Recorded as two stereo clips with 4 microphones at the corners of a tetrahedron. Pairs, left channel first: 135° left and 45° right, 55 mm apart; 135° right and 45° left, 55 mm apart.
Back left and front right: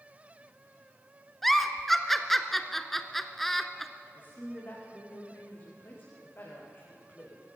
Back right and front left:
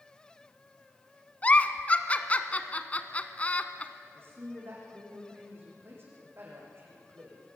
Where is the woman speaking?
85° left, 7 m.